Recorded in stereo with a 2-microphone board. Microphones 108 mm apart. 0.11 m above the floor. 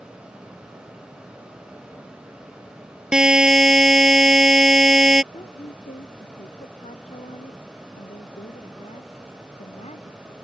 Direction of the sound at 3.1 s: 5° right (ahead or behind).